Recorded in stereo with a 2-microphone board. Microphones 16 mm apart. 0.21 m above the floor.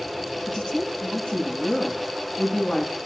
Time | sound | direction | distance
0.5 | a woman speaking | 80° left | 9.5 m